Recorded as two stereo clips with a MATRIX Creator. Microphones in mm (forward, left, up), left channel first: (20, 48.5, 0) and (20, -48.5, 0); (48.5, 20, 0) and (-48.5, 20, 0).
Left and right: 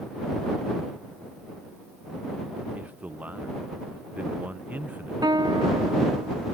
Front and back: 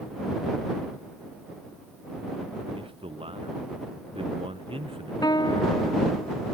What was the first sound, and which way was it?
A man speaking, 165° right.